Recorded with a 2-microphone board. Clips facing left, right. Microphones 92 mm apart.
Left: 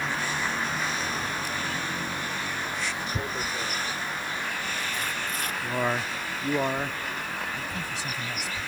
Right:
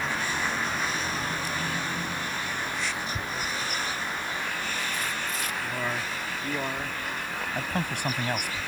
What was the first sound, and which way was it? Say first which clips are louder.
Tearing paper: left 1 dB; 50° left (ahead or behind).